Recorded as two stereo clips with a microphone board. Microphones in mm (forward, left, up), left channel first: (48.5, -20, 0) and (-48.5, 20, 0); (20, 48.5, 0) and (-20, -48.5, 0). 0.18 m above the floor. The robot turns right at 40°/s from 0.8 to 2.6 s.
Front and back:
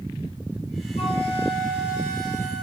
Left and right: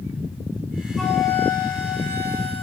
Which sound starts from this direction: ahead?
A flute, at 1.0 s.